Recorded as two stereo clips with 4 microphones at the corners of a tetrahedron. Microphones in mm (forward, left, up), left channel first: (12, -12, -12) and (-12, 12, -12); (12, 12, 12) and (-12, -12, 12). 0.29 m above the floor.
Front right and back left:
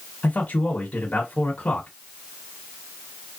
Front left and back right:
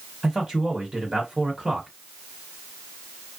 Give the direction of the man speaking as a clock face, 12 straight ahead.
2 o'clock.